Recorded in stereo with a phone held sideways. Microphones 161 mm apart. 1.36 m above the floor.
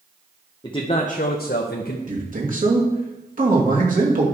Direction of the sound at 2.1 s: 60° right (ahead or behind).